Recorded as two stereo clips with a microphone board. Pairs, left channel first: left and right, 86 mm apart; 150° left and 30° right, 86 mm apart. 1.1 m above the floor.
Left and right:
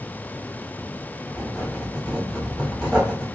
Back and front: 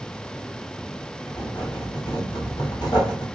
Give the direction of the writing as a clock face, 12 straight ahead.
6 o'clock.